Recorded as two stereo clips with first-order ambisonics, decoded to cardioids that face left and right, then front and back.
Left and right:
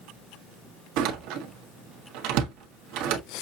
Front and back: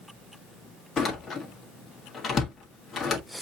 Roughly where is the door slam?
Right.